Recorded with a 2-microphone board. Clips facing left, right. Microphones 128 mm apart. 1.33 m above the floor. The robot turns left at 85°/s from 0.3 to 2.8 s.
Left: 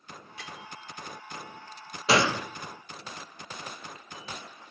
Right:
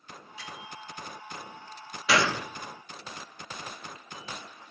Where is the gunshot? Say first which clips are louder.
Left 2 dB; 40° left, 0.6 m; by 2.5 s 10° left, 0.6 m.